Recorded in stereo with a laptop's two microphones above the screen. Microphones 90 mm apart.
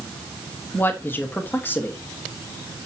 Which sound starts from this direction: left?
A man speaking, at 0.7 s.